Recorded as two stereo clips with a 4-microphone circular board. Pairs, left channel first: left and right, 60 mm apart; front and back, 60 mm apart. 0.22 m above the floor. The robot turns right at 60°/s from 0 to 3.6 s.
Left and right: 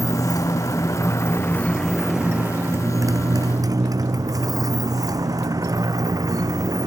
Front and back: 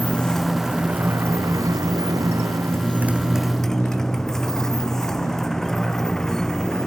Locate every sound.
0.0 s a motorcycle: 60° left; by 6.9 s 80° right